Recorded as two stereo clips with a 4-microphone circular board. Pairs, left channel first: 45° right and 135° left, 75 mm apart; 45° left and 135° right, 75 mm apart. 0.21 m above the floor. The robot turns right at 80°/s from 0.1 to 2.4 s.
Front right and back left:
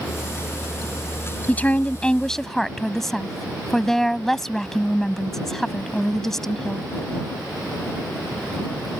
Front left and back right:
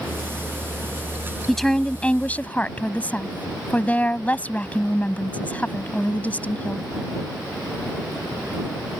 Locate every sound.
1.5 s a woman speaking: 40° right; by 6.8 s 30° left